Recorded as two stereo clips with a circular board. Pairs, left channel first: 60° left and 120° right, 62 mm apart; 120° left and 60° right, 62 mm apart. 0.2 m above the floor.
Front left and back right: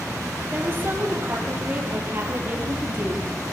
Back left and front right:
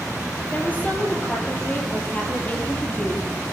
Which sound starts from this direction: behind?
A woman speaking, at 0.5 s.